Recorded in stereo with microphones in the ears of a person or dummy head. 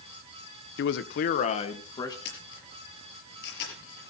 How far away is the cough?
No cough in this recording.